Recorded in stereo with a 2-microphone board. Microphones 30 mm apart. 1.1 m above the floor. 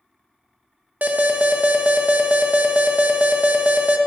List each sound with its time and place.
1.0 s an alarm: 65° right (ahead or behind), 0.9 m